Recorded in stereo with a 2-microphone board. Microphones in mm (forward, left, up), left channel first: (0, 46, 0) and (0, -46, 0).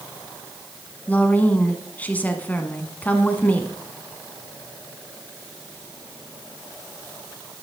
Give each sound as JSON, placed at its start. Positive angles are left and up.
{"t": 1.1, "sound": "a woman speaking", "side_deg": 20, "distance_m": 1.1}